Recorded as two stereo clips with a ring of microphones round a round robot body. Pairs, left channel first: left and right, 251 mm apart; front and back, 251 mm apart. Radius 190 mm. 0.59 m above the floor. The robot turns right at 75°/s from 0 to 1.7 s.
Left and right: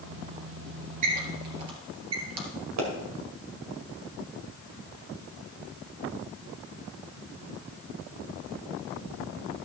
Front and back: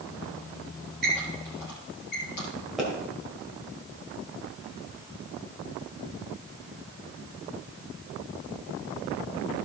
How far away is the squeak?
About 2.5 m.